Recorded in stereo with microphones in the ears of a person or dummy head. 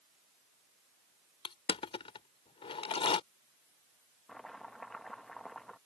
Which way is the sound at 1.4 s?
25° left (ahead or behind).